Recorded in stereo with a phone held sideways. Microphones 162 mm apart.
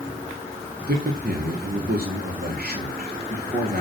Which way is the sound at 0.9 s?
70° right (ahead or behind).